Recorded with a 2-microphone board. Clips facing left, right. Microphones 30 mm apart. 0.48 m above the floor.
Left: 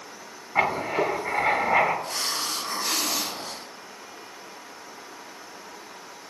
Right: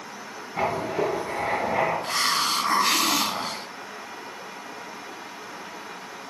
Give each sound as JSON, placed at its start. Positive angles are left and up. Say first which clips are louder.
{"t": 0.6, "sound": "writing", "louder": "left 2 dB", "side_deg": 60, "distance_m": 2.5}
{"t": 2.0, "sound": "a hiss", "louder": "right 6 dB", "side_deg": -50, "distance_m": 0.6}